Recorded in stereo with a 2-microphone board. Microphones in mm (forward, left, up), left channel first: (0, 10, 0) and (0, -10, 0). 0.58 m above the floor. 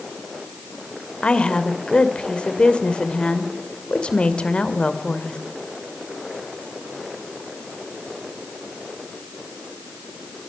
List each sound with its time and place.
1.2 s a woman speaking: 65° left (ahead or behind), 2 m